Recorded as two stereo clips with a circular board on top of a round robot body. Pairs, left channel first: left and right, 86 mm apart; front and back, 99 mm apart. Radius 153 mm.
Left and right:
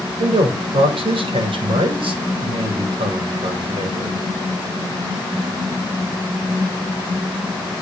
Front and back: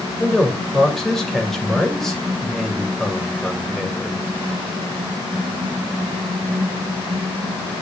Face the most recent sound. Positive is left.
turn(degrees=-90)